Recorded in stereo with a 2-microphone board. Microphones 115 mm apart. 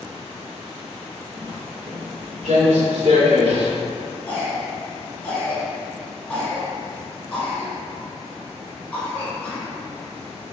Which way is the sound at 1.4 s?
60° right (ahead or behind).